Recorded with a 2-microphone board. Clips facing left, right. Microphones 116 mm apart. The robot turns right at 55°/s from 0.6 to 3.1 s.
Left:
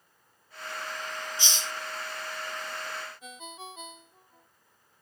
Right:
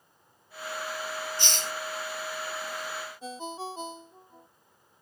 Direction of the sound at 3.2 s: 30° right (ahead or behind).